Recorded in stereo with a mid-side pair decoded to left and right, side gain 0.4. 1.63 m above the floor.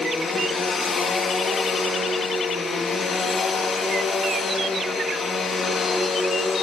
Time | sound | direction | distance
0.0 | a machine running | 50° left | 3 m